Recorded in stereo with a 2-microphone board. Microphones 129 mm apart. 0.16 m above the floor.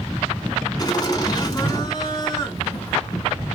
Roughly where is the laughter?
Left.